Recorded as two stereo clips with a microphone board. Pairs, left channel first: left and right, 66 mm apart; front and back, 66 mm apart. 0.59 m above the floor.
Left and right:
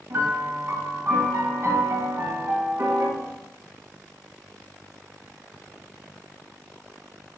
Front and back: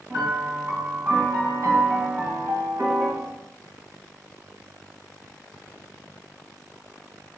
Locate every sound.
0.1 s a piano: 140° right, 3.5 m